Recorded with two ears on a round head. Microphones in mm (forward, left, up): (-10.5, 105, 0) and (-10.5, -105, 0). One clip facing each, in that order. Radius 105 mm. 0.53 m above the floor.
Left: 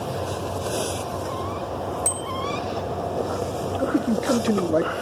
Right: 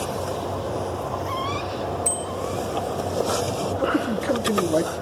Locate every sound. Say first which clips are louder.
2.0 s a bicycle bell: right 2 dB; 25° left (ahead or behind), 6.5 m
3.8 s a man speaking: left 3 dB; 10° left (ahead or behind), 0.7 m